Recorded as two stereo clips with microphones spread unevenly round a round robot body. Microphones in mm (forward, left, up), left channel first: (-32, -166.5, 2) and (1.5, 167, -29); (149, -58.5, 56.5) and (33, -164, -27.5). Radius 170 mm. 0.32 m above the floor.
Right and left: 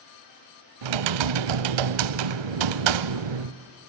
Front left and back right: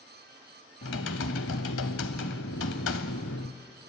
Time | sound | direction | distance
0.8 | typing on a keyboard | 80° left | 0.5 m